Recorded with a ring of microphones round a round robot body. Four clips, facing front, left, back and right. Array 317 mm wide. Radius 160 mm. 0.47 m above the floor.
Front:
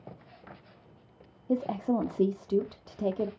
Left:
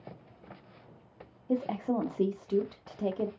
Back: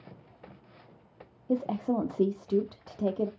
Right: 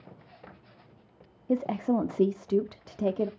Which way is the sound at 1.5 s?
100° right.